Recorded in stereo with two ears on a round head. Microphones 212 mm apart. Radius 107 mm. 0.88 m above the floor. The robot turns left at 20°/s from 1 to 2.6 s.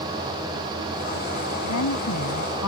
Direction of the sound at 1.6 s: 85° left.